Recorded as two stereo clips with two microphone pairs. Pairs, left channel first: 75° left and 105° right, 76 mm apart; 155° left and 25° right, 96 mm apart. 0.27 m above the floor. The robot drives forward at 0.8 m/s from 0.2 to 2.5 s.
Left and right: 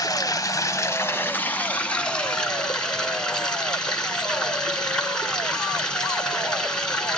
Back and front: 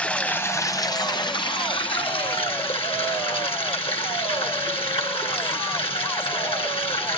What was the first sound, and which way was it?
Running water, 80° left.